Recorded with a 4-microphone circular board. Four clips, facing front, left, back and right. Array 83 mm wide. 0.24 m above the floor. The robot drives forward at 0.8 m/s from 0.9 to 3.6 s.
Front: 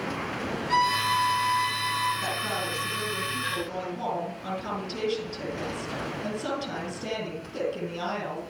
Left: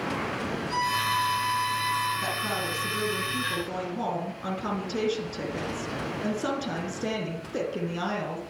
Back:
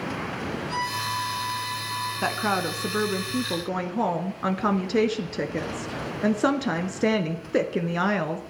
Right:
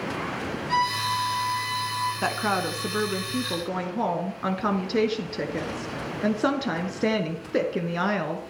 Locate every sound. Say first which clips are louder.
0.7 s a violin: right 3 dB, front 8 dB; 40° right, 8 m; by 2.1 s 45° right, 7.5 m
2.2 s a woman speaking: right 4 dB, back 5 dB; 130° right, 2 m; by 8.4 s 150° right, 3 m